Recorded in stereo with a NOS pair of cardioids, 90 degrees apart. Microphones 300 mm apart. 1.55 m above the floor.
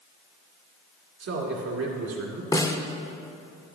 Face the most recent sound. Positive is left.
turn(degrees=10)